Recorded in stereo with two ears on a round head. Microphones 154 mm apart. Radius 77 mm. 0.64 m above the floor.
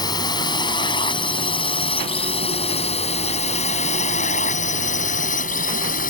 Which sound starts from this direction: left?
A drone, at 0.0 s.